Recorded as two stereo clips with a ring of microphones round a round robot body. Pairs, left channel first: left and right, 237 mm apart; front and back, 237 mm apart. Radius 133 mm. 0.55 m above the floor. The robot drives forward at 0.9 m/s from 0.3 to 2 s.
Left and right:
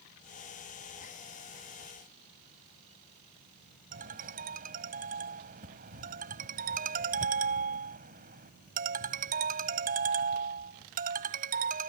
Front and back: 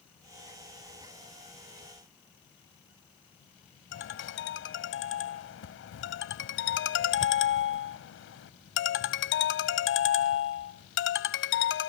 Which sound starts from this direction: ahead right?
A ringtone, at 3.9 s.